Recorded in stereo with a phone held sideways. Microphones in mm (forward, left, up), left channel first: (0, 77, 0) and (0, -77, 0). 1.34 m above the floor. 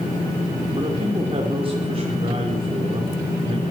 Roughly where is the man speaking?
Right.